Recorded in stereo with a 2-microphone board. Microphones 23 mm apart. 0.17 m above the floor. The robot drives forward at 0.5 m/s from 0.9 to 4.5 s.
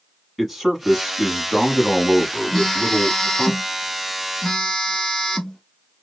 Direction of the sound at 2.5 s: 15° left (ahead or behind).